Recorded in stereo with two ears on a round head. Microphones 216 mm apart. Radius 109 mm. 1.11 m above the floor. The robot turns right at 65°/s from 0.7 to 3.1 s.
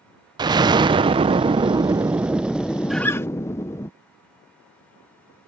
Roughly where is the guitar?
Centre.